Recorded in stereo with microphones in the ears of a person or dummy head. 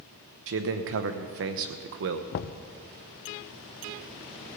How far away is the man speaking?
About 1.0 m.